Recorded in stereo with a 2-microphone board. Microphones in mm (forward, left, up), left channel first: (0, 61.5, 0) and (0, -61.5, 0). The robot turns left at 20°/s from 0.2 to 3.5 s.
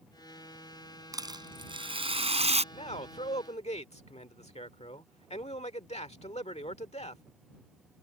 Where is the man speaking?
60° left (ahead or behind).